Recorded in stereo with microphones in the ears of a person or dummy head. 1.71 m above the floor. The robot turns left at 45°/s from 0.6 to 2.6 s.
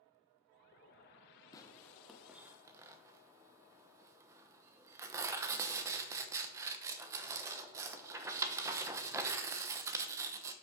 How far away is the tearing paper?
About 0.9 m.